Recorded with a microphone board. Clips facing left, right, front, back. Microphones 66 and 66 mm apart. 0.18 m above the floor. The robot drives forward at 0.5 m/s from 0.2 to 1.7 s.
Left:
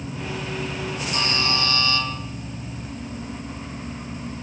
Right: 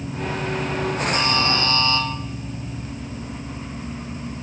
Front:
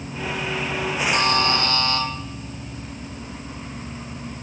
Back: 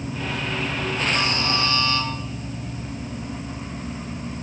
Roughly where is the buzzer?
Ahead right.